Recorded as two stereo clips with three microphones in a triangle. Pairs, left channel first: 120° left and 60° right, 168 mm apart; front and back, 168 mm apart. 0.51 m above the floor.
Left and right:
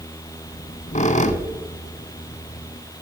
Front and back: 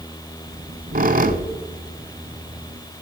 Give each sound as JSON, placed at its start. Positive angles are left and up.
{"t": 0.5, "sound": "a squeak", "azimuth_deg": 160, "distance_m": 0.7}